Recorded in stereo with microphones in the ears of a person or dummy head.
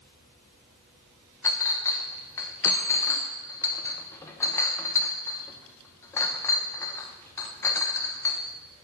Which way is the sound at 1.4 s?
15° left (ahead or behind).